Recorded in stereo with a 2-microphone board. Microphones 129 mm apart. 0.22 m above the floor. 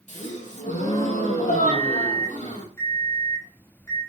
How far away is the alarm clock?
About 4.5 m.